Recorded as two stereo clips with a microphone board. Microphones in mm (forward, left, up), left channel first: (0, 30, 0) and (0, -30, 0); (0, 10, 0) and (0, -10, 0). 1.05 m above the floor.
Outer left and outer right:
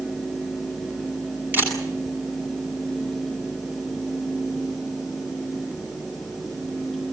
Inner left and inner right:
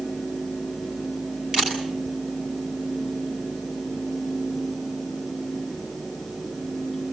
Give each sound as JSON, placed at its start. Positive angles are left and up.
{"t": 1.5, "sound": "a camera shutter", "side_deg": -30, "distance_m": 8.5}